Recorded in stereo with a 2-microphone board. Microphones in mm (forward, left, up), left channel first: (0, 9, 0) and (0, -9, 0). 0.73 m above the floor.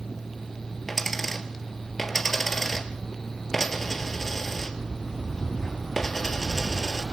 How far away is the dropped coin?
About 2.5 m.